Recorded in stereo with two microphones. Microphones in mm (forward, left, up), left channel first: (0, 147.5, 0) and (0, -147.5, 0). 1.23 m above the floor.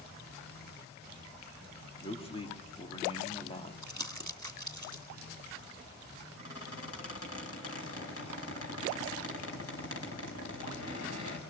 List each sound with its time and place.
2.0 s a man speaking: 20° left (ahead or behind), 3 m
3.8 s crumpling: 70° right (ahead or behind), 1.6 m
6.4 s a squeak: 55° left (ahead or behind), 4.5 m